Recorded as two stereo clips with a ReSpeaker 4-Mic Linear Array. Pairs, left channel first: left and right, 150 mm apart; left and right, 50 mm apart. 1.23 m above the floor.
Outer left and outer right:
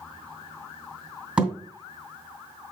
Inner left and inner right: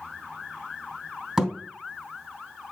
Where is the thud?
10° right (ahead or behind), 2 m.